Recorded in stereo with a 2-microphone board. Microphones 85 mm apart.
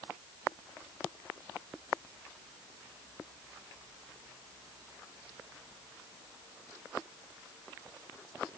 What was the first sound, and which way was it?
Only background noise.